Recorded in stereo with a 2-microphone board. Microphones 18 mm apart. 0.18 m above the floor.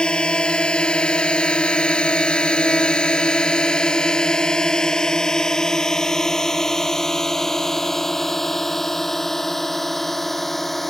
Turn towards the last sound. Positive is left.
turn(degrees=10)  # may be behind; listen again after turning